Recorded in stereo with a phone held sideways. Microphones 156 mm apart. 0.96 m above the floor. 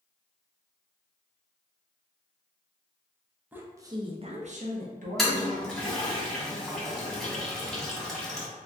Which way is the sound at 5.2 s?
Centre (ahead or behind).